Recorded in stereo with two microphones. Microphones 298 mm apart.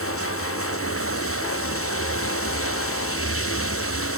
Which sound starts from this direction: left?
Running water, at 0.0 s.